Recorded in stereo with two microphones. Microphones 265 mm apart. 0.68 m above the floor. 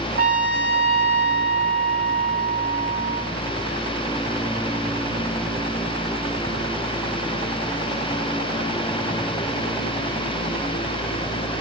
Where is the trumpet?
60° right (ahead or behind), 4 m.